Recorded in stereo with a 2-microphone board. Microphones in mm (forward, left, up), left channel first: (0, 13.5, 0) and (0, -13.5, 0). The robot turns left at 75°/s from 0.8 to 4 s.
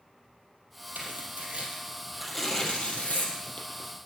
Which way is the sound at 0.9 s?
70° right (ahead or behind).